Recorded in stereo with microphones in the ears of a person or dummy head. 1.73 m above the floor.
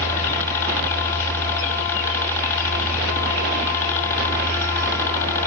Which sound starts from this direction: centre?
A helicopter, at 0.0 s.